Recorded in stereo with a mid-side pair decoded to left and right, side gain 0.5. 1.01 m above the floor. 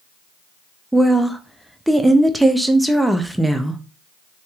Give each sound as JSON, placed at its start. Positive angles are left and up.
{"t": 0.9, "sound": "a woman speaking", "azimuth_deg": -5, "distance_m": 0.7}